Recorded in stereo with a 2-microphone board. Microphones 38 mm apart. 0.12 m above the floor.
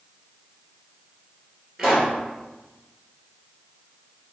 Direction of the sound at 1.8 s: 10° right (ahead or behind).